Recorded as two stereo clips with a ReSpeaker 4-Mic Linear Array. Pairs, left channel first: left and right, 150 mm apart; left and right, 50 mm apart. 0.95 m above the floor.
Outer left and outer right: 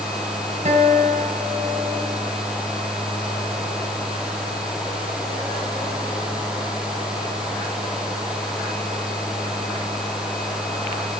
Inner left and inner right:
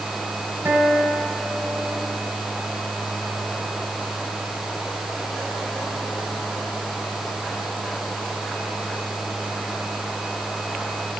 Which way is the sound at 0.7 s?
50° right (ahead or behind).